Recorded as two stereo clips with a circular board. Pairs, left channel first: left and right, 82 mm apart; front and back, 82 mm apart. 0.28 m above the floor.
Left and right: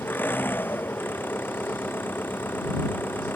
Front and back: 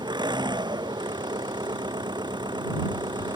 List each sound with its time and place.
0.0 s an engine running: 155° left